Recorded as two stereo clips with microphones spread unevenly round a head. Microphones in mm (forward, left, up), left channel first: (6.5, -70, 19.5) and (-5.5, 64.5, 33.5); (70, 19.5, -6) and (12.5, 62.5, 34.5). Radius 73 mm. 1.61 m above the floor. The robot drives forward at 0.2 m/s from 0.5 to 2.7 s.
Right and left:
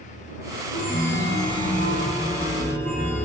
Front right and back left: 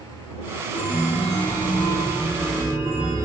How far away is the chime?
About 0.7 m.